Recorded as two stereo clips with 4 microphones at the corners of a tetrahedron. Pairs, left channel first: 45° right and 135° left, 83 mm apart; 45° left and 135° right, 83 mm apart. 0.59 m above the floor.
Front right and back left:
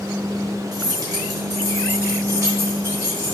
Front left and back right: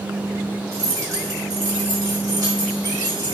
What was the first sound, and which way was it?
Keys jangling, 170° left.